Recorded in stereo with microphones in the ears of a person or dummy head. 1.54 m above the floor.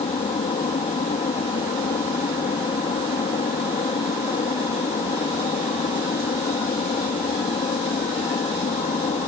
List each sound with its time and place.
0.0 s an aircraft: 25° left (ahead or behind)